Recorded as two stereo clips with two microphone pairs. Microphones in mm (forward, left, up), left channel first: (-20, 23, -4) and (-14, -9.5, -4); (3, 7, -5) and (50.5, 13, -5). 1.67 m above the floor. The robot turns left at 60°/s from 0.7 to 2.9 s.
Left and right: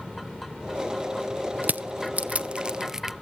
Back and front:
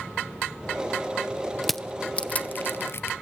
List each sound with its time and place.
1.6 s crushing: 80° right, 0.6 m; by 3.1 s 155° right, 0.6 m